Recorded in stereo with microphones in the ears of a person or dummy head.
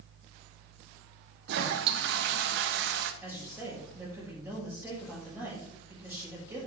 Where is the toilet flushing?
60° right (ahead or behind), 1.0 m.